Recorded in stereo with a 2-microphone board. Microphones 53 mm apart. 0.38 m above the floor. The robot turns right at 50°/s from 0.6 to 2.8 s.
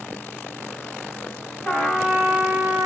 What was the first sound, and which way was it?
A trumpet, 160° left.